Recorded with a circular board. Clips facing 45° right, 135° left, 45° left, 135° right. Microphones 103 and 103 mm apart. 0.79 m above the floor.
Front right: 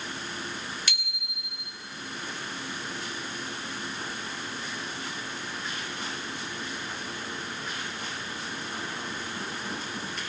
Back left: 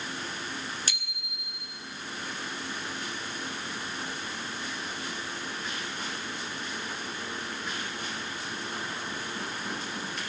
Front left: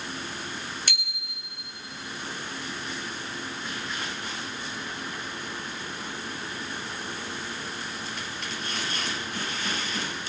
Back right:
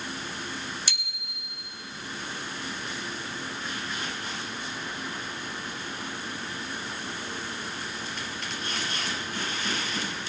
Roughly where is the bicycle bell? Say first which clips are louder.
Front right 1 dB, front left 2 dB; left.